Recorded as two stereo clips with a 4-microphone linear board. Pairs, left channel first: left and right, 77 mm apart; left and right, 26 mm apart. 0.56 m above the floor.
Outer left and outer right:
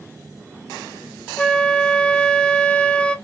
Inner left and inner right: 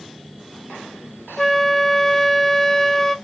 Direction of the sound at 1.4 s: 15° left (ahead or behind).